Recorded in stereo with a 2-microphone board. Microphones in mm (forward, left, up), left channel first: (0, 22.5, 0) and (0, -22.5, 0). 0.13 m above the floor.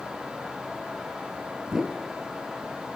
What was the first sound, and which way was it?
A whoosh, 10° right (ahead or behind).